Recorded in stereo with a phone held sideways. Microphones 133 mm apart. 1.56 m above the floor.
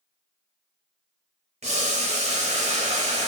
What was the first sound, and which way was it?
Boiling, 55° right (ahead or behind).